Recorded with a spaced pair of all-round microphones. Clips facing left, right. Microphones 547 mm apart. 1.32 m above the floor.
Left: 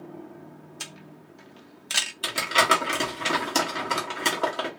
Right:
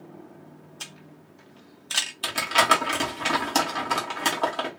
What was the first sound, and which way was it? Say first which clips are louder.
A camera shutter: left 2 dB; 50° left (ahead or behind).